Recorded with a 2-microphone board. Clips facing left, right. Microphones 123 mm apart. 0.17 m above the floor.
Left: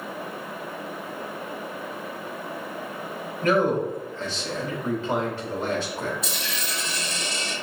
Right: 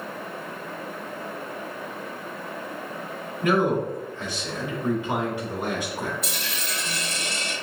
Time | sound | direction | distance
3.4 | a man speaking | 15° right (ahead or behind) | 1.2 m
6.2 | a dropped coin | 55° right (ahead or behind) | 1.6 m